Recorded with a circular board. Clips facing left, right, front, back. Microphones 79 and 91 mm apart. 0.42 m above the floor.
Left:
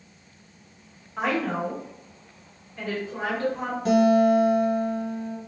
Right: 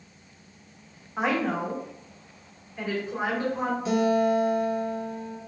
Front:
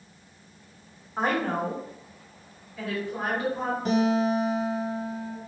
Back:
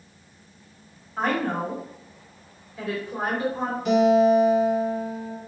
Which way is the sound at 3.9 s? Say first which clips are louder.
Left 5 dB, back 7 dB; 55° left.